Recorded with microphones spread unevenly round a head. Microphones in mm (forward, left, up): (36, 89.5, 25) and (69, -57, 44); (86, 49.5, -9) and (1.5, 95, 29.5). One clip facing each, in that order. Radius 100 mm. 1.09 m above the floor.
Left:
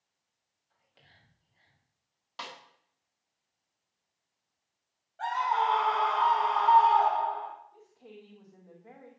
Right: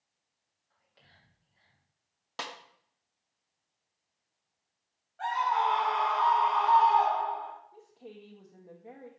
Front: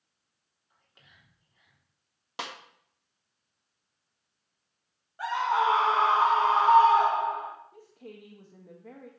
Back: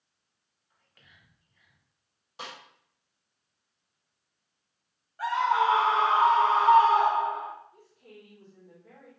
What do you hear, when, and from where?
0.7 s whispering: 35° left, 3 m
2.4 s a snare drum: 45° right, 1.2 m
5.2 s a scream: 40° left, 4.5 m
7.7 s a woman speaking: 10° right, 1.4 m